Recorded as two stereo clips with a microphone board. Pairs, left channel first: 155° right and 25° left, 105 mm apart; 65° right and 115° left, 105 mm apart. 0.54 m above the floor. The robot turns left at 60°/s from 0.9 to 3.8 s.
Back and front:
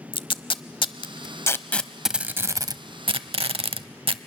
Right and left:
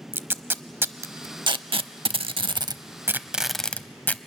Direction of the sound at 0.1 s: Straight behind.